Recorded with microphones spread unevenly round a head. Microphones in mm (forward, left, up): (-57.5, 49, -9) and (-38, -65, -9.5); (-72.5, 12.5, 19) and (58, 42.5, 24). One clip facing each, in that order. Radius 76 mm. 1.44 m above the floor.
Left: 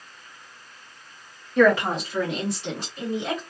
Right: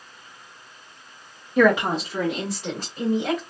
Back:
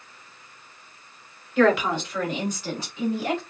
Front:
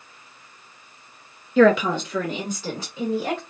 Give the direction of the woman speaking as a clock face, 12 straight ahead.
12 o'clock.